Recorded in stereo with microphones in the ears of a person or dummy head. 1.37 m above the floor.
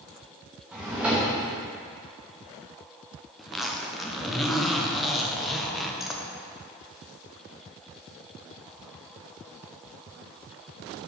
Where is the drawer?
10° right (ahead or behind), 1.0 m.